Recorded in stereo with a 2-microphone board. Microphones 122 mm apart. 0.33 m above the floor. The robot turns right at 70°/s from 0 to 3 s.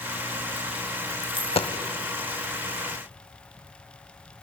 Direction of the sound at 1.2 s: 35° left (ahead or behind).